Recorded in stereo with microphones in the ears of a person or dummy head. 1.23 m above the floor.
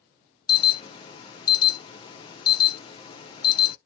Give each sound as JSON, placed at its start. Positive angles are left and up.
{"t": 0.5, "sound": "an alarm", "side_deg": 25, "distance_m": 0.5}